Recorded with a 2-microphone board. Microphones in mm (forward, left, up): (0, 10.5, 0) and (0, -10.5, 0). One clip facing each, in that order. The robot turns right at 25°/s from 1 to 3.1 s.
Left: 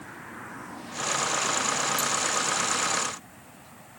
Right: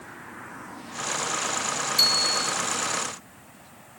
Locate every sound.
2.0 s a bicycle bell: 85° right; by 2.5 s 70° right (ahead or behind)